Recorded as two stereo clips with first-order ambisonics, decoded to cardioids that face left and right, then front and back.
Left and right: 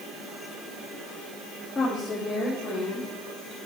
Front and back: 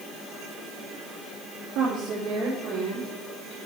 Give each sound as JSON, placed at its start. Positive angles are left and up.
{"t": 1.8, "sound": "a woman speaking", "azimuth_deg": 170, "distance_m": 1.2}